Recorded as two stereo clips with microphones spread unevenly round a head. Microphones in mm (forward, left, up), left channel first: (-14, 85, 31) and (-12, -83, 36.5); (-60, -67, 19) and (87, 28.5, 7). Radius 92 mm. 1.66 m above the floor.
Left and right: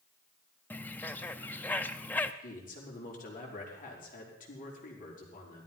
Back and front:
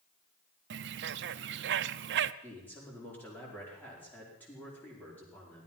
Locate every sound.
0.7 s a bird: 10° left, 0.5 m
2.4 s a man speaking: 130° left, 5 m